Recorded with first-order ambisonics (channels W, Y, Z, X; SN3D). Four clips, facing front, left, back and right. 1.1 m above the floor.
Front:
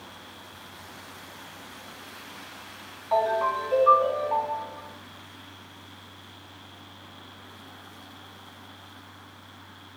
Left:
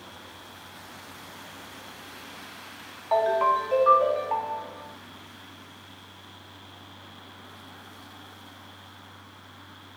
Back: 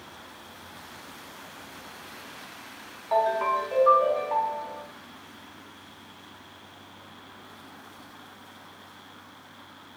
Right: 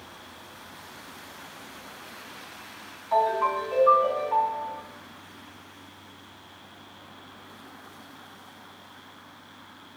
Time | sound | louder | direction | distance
3.1 | a ringtone | left 1 dB, even | 100° left | 0.7 m